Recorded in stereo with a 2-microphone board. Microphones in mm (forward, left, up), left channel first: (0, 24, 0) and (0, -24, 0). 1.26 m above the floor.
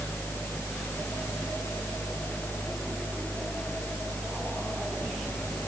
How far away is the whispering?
No whispering in this recording.